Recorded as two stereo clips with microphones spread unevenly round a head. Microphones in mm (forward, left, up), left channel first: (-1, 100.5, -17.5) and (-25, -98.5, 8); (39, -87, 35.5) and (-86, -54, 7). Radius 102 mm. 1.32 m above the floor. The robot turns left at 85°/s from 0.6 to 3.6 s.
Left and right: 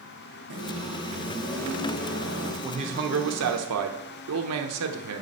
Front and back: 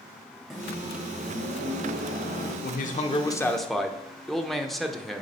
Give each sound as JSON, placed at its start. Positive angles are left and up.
{"t": 0.5, "sound": "a microwave", "azimuth_deg": -105, "distance_m": 2.5}
{"t": 2.6, "sound": "a man speaking", "azimuth_deg": -20, "distance_m": 1.0}